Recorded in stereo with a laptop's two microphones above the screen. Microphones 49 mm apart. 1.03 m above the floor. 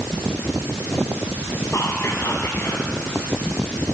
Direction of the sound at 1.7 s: 70° left (ahead or behind).